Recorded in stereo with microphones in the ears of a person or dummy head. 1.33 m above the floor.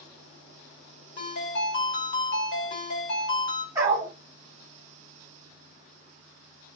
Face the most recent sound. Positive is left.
turn(degrees=-20)  # may be behind; listen again after turning